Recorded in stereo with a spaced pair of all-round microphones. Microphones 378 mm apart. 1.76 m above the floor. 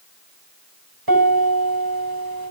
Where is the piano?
70° right (ahead or behind), 7 m.